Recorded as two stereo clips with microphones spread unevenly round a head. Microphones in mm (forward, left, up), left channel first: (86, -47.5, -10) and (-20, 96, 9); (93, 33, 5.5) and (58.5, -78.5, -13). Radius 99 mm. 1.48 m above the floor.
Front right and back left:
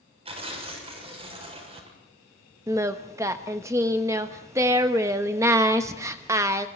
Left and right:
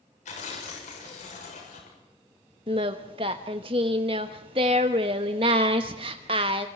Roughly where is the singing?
Behind.